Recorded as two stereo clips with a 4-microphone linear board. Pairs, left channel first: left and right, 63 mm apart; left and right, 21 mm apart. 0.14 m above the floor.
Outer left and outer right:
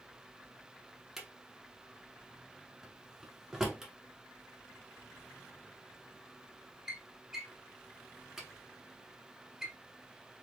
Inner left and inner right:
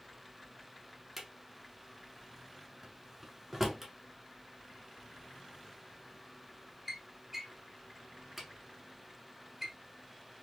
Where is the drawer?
10° right (ahead or behind), 0.9 m.